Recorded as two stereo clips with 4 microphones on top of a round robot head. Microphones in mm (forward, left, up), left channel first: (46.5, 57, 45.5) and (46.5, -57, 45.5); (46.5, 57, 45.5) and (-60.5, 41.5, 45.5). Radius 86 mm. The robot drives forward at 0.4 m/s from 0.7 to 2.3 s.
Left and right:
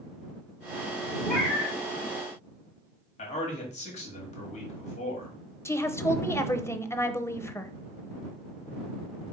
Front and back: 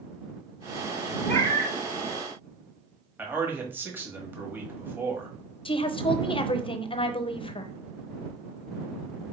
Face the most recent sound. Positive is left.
turn(degrees=25)